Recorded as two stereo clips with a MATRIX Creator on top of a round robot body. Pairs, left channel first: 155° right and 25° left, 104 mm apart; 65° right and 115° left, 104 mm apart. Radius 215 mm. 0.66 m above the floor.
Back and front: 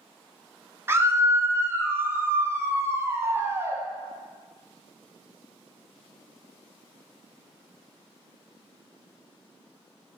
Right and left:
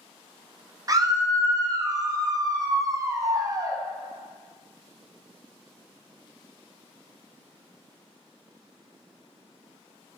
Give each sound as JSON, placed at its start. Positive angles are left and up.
{"t": 0.9, "sound": "a scream", "azimuth_deg": 80, "distance_m": 0.6}